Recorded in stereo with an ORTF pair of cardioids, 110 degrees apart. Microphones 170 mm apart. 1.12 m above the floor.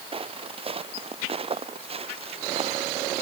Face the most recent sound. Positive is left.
turn(degrees=-35)